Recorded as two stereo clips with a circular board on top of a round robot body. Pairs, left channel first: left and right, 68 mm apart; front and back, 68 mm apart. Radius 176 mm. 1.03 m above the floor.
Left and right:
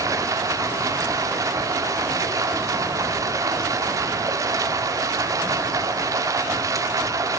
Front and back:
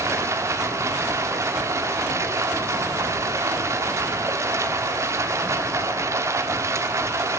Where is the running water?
130° right, 1.5 m.